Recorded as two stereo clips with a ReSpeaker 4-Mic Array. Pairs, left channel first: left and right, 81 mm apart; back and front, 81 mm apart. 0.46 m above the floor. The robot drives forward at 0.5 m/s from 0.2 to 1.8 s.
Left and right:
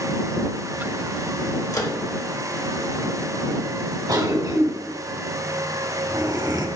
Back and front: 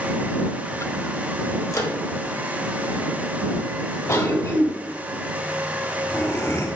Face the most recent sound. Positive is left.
turn(degrees=-120)